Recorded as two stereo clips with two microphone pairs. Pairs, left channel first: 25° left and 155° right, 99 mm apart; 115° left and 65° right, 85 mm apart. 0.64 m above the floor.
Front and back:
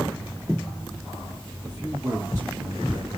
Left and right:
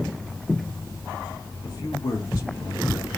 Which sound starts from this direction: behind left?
A man speaking, at 1.6 s.